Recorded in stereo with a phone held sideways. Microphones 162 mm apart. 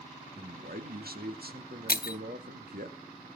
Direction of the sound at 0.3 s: 70° right (ahead or behind).